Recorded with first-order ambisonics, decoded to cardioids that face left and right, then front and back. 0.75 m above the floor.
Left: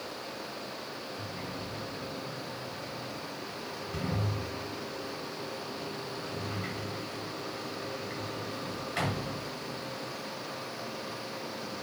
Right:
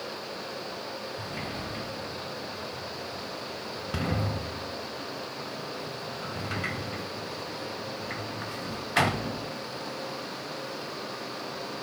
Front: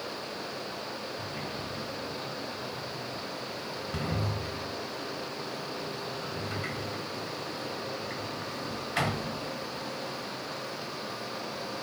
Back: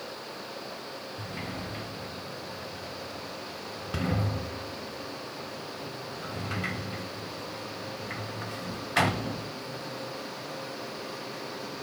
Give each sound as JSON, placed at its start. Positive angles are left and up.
{"t": 1.2, "sound": "a sliding door", "azimuth_deg": -110, "distance_m": 0.6}